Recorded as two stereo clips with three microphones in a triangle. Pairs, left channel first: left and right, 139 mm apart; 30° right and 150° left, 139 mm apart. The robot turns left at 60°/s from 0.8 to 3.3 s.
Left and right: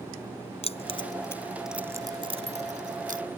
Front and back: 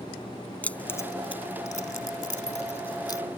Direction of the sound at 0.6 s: 50° left.